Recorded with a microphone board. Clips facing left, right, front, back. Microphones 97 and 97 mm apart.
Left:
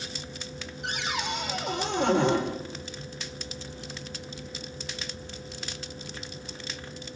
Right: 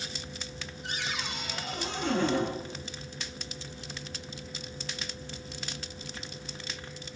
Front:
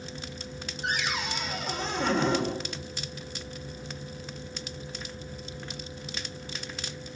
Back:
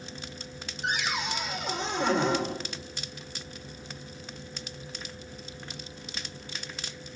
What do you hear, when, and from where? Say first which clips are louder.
0.8 s a cupboard door: left 5 dB, back 1 dB; 90° left, 9.5 m